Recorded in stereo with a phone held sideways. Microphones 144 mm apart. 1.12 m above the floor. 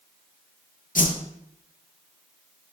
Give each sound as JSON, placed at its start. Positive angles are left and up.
{"t": 0.9, "sound": "a whoosh", "side_deg": 70, "distance_m": 0.7}